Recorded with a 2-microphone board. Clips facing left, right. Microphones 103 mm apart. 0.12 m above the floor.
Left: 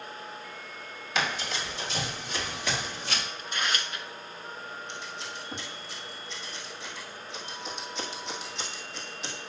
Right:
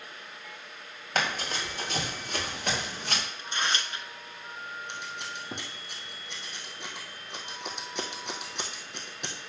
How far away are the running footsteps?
About 4 m.